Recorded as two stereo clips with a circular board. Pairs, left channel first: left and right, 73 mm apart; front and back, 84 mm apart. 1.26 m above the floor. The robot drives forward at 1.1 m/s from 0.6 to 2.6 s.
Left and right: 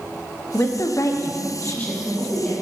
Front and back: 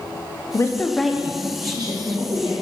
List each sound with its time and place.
0.5 s a woman speaking: 45° left, 0.8 m; by 2.5 s 165° left, 1.7 m